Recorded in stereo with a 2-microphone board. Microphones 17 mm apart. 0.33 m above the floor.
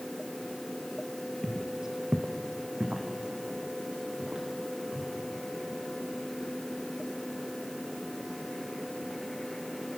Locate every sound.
1.4 s footsteps: 10° left (ahead or behind), 0.6 m; by 5.1 s 80° right, 3 m